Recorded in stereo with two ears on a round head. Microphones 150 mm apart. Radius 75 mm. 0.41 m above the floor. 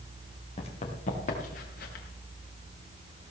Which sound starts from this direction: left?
Running footsteps, at 0.6 s.